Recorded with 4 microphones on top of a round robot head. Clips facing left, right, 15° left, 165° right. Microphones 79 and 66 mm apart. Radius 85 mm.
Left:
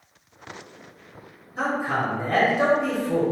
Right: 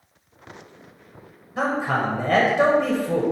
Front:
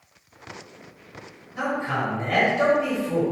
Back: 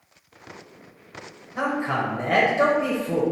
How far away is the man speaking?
About 1.1 m.